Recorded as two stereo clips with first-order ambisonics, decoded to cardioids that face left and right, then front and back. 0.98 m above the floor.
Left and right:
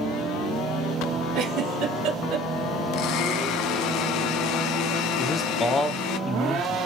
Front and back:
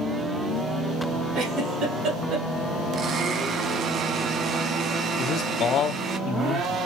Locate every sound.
1.4 s a giggle: 130° right, 3 m
2.9 s a blender: 120° left, 0.6 m
5.2 s a man speaking: 20° left, 0.8 m